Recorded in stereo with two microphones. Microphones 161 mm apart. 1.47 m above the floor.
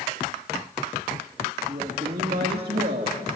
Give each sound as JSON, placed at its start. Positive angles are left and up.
{"t": 1.7, "sound": "a woman speaking", "side_deg": -45, "distance_m": 2.5}